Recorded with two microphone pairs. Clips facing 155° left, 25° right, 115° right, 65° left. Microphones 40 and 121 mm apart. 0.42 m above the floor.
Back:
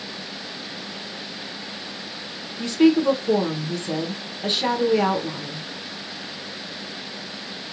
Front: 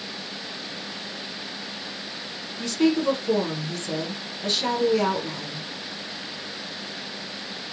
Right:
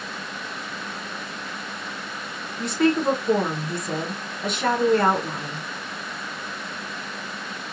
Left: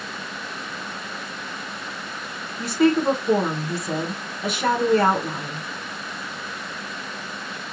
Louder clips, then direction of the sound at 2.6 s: Back 5 dB, left 2 dB; 150° left.